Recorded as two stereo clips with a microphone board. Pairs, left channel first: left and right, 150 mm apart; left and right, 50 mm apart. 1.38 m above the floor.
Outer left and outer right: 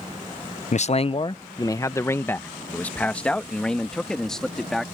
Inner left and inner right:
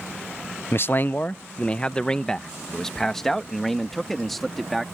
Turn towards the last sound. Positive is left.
turn(degrees=0)  # may be behind; listen again after turning